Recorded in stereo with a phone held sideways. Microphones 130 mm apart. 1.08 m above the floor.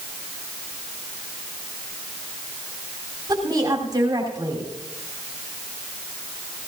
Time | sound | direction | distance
3.3 | a woman speaking | 30° right (ahead or behind) | 3.5 m